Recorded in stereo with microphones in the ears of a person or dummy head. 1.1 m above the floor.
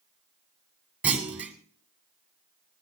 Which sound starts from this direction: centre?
A clunk, at 1.0 s.